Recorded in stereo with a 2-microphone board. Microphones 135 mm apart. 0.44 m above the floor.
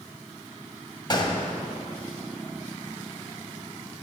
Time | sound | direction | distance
1.1 | a gunshot | 35° left (ahead or behind) | 1.5 m